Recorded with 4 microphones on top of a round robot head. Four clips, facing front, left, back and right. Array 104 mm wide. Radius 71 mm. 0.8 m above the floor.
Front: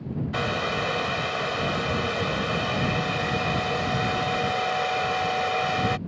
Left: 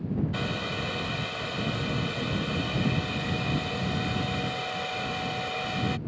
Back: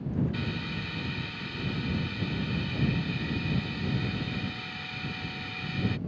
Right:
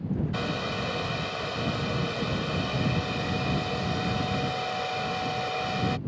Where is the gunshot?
I don't hear a gunshot.